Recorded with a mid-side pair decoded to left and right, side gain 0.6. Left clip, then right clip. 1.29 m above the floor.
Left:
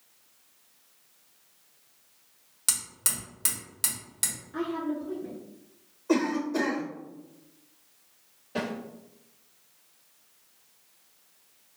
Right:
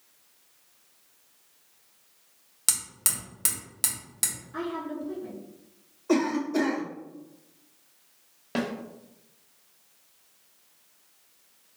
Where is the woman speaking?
5° left, 1.8 m.